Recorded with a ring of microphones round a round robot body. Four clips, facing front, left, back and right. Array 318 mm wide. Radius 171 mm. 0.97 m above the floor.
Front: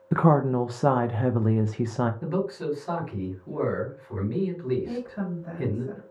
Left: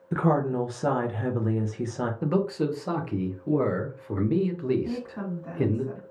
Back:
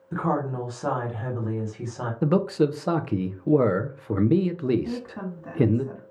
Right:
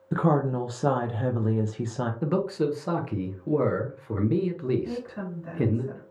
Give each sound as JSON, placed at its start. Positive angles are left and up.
{"t": 0.1, "sound": "a woman speaking", "azimuth_deg": -10, "distance_m": 0.6}
{"t": 2.2, "sound": "a man speaking", "azimuth_deg": 180, "distance_m": 0.7}
{"t": 4.8, "sound": "a woman speaking", "azimuth_deg": 160, "distance_m": 2.0}